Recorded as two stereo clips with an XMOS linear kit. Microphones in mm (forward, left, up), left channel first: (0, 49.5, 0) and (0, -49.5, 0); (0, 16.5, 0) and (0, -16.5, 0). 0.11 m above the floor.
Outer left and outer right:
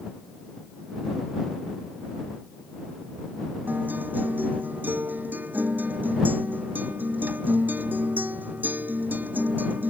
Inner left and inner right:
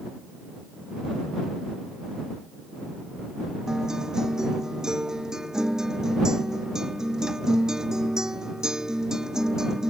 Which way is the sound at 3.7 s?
20° right (ahead or behind).